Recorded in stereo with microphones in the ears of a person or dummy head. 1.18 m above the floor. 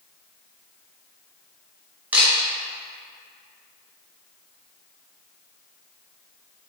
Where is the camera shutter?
10° right (ahead or behind), 0.9 m.